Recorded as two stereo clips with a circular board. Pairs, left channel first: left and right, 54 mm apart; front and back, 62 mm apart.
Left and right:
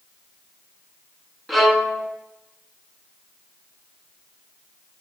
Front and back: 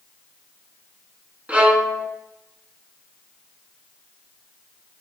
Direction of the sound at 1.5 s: Straight behind.